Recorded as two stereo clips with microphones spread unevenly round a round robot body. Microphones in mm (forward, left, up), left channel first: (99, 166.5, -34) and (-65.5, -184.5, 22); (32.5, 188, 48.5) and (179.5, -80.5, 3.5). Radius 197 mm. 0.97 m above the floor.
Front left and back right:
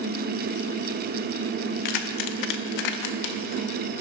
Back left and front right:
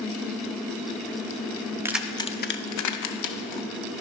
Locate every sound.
1.9 s keys jangling: 20° left, 0.7 m; by 3.7 s 110° left, 0.9 m